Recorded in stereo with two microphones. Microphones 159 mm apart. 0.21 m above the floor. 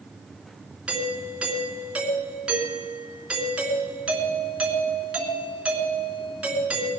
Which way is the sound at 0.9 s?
5° right (ahead or behind).